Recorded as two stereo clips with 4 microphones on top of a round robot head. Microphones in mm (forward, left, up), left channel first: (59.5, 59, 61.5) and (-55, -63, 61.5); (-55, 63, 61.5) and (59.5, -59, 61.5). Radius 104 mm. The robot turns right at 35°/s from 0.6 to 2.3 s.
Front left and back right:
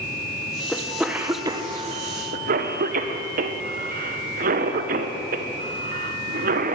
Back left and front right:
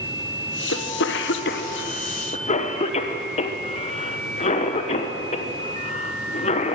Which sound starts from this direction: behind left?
A cough, at 0.7 s.